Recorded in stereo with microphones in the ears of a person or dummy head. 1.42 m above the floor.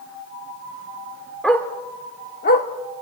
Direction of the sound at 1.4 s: 5° left (ahead or behind).